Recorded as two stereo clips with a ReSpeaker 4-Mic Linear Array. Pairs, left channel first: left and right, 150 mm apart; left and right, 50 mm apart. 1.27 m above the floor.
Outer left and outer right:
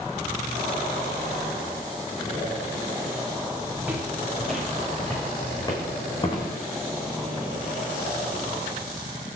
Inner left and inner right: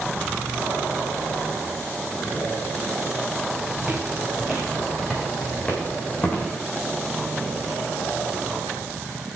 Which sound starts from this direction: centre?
Footsteps, at 3.8 s.